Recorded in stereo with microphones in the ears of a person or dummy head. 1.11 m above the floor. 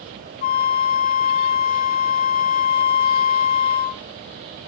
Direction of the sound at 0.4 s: 45° left (ahead or behind).